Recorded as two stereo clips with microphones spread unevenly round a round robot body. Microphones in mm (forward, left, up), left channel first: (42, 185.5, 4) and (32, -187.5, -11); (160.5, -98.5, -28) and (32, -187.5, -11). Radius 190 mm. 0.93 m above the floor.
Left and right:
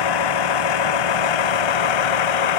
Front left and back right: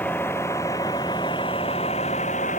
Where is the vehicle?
120° left; by 2.6 s 105° left.